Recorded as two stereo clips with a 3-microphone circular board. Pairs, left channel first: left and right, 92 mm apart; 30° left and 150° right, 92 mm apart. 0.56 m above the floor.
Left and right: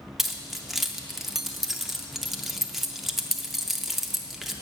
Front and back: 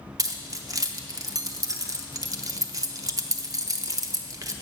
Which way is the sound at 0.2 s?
175° right.